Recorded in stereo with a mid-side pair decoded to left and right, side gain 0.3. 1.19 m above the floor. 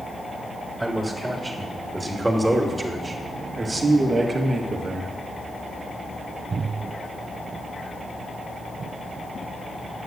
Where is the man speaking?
10° right, 3.5 m; by 5.1 s 60° right, 1.5 m.